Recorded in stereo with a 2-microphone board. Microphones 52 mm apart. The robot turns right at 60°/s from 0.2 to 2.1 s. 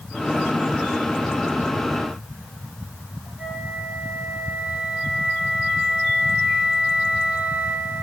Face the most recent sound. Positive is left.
turn(degrees=-25)  # may be behind; listen again after turning